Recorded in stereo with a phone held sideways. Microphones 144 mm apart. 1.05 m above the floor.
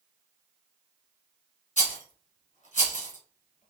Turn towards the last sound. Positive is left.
turn(degrees=60)  # may be behind; listen again after turning